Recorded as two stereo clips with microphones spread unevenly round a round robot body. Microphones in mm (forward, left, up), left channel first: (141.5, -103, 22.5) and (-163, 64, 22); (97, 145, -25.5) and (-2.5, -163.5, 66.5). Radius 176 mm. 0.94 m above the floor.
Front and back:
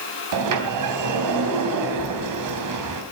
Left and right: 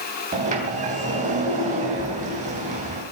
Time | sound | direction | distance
0.3 | a sliding door | 175° right | 3.5 m